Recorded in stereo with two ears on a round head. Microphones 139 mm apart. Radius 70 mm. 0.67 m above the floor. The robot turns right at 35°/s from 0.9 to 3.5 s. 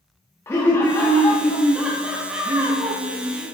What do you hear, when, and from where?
0.5 s laughter: 150° left, 0.8 m; by 3.5 s 115° right, 0.8 m